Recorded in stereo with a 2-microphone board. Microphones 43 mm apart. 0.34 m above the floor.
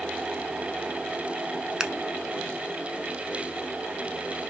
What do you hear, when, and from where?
1.8 s scissors: 20° right (ahead or behind), 0.6 m